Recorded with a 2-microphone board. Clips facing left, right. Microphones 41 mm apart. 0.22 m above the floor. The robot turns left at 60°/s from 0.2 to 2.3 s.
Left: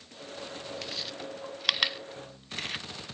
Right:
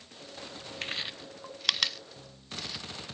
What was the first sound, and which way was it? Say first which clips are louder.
Chewing: right 1 dB; 45° right (ahead or behind).